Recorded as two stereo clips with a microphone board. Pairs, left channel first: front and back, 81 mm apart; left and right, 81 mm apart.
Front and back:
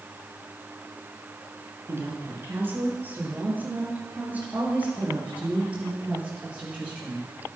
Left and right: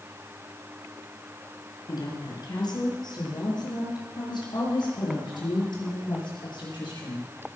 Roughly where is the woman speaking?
Behind left.